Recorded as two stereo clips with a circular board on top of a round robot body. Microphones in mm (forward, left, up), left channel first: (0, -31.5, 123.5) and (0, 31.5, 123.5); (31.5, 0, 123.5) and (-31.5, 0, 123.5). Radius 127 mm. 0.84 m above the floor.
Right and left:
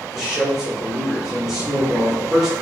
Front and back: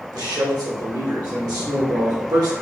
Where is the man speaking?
170° left, 1.6 m.